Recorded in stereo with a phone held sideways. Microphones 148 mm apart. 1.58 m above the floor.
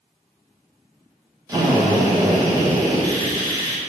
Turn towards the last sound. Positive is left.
turn(degrees=-25)  # may be behind; listen again after turning